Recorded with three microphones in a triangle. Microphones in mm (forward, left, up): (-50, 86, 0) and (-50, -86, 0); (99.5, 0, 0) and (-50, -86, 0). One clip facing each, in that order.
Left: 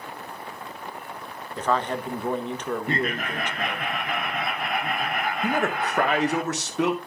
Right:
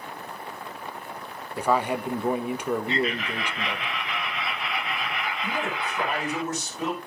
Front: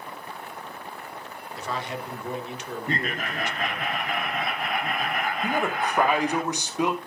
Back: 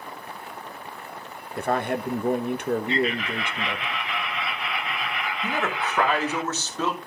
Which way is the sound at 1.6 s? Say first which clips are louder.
Right 1 dB, back 8 dB; 170° right.